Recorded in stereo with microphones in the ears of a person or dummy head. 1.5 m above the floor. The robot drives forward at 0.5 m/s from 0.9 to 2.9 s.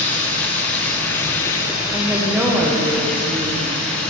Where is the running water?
10° left (ahead or behind), 0.7 m.